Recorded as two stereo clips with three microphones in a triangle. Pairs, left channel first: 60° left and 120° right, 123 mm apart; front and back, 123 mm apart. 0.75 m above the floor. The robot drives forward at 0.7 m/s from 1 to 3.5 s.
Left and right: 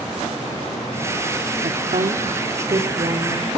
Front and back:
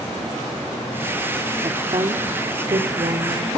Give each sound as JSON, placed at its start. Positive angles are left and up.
{"t": 1.6, "sound": "a woman speaking", "azimuth_deg": -130, "distance_m": 1.3}